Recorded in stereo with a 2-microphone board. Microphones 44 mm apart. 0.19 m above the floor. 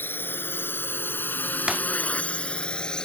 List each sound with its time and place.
0.0 s a drone: 55° left (ahead or behind); by 3.1 s 15° left (ahead or behind)
1.7 s breaking glass: 15° right (ahead or behind)